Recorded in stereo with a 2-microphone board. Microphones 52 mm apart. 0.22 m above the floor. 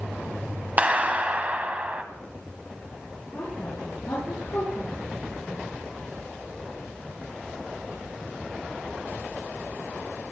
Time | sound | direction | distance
0.8 | a clap | 25° right (ahead or behind) | 1.1 m
3.3 | a woman speaking | 55° left (ahead or behind) | 4 m